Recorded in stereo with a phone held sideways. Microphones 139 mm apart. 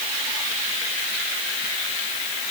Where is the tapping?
No tapping in this recording.